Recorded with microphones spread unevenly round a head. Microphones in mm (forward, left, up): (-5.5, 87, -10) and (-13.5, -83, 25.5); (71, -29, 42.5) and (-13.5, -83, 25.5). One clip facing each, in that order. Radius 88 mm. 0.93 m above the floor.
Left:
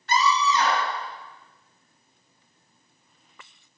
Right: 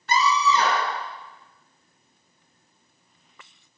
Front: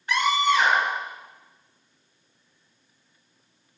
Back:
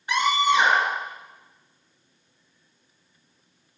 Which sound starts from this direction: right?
A scream, at 0.1 s.